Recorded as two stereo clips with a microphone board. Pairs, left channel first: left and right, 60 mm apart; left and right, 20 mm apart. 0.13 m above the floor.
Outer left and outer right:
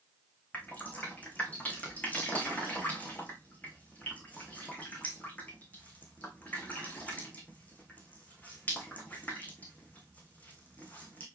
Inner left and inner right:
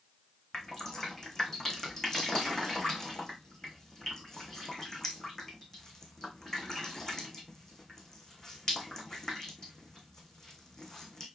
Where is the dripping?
25° left (ahead or behind), 2.5 m.